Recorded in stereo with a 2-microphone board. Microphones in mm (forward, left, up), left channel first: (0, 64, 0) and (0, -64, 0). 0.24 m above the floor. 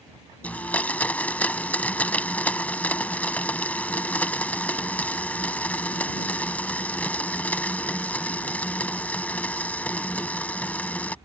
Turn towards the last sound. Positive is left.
turn(degrees=10)  # may be behind; listen again after turning